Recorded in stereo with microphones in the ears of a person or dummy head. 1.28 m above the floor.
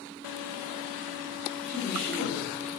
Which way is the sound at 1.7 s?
65° right (ahead or behind).